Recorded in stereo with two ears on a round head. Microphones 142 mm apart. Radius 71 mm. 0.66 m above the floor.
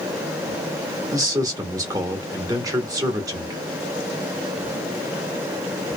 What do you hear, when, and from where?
1.1 s a man speaking: 25° right (ahead or behind), 1.2 m